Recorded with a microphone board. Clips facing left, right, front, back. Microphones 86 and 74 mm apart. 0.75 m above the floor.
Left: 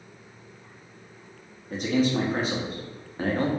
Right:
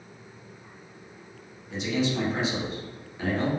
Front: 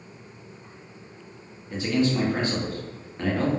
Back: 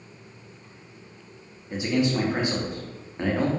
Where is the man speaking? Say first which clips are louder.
Left 3 dB, even; 115° left, 0.6 m.